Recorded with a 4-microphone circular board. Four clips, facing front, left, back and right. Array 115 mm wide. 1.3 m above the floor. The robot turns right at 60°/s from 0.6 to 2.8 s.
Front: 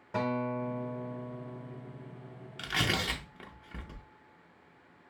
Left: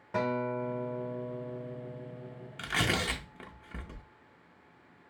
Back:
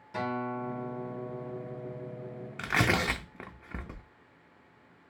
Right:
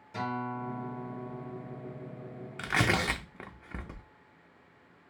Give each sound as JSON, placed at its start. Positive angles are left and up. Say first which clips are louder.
{"t": 0.1, "sound": "a guitar", "louder": "left 4 dB, front 1 dB", "azimuth_deg": 55, "distance_m": 1.3}
{"t": 2.6, "sound": "tearing paper", "louder": "right 3 dB, back 5 dB", "azimuth_deg": -160, "distance_m": 0.5}